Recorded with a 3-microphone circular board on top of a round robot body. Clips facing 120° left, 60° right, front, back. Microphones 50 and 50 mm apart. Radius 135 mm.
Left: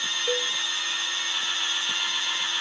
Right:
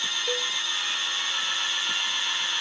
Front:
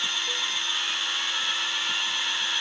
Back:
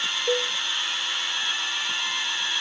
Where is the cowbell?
160° right.